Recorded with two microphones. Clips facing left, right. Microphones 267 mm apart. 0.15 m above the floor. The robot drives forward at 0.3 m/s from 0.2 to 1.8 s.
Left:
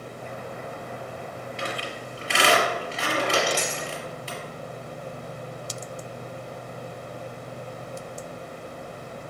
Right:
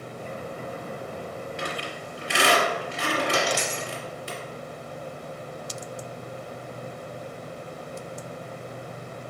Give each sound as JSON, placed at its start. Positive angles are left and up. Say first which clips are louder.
{"t": 1.6, "sound": "a squeak", "louder": "even", "side_deg": -10, "distance_m": 2.0}
{"t": 3.3, "sound": "a dropped coin", "louder": "left 1 dB", "side_deg": 75, "distance_m": 1.8}